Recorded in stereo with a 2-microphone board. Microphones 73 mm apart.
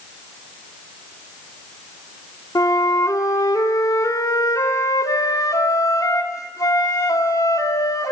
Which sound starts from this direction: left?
A flute, at 2.5 s.